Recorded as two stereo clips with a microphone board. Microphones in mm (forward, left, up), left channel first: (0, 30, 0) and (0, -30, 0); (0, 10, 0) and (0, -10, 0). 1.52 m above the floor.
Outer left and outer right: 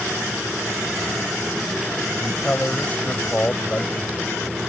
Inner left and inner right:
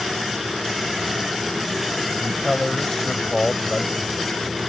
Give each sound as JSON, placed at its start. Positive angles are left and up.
{"t": 2.1, "sound": "a man speaking", "side_deg": 20}